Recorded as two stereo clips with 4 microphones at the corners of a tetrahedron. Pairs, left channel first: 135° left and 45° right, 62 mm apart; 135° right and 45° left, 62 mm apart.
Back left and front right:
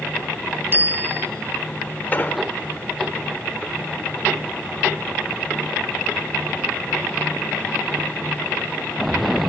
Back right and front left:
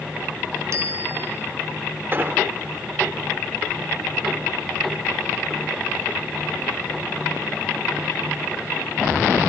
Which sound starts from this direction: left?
An explosion, at 2.1 s.